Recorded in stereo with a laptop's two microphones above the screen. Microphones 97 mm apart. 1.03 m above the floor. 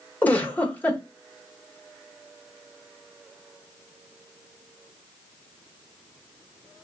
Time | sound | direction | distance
0.2 | a giggle | 15° left (ahead or behind) | 1.3 m